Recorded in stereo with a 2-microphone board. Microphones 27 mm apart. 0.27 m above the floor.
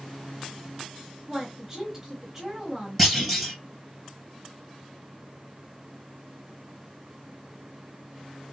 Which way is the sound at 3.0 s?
Centre (ahead or behind).